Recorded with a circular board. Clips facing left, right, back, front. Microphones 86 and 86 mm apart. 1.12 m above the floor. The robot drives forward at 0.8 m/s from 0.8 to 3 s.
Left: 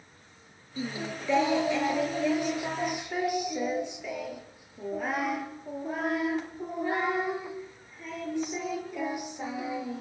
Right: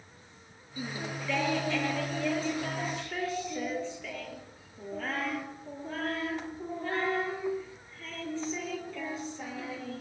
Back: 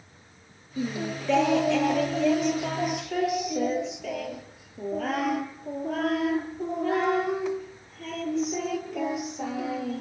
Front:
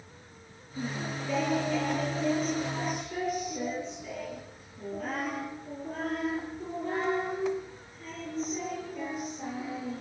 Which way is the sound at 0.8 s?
160° left.